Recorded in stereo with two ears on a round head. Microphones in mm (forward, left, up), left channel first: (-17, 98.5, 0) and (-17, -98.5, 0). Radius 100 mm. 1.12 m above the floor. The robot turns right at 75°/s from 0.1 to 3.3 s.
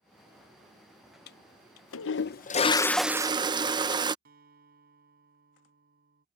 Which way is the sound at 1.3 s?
50° left.